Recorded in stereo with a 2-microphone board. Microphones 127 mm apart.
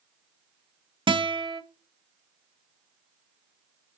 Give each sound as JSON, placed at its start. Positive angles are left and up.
{"t": 1.1, "sound": "a guitar", "side_deg": -40, "distance_m": 0.5}